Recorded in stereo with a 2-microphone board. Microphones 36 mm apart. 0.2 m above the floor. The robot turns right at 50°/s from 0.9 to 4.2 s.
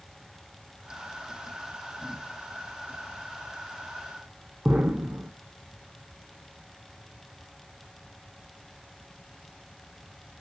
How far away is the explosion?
About 0.6 m.